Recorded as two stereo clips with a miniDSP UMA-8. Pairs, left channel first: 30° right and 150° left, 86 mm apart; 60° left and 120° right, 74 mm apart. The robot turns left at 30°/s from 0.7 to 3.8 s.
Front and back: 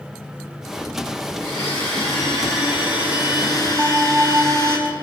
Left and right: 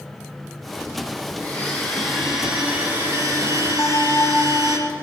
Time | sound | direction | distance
1.4 | a blender | 10° right | 3.5 m
3.8 | a bell | 105° left | 1.6 m